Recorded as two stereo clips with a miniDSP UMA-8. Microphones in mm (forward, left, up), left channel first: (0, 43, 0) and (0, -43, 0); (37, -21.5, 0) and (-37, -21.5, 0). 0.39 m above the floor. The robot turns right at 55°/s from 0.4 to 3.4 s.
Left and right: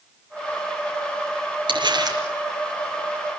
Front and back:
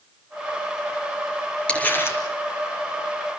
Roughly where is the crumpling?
Right.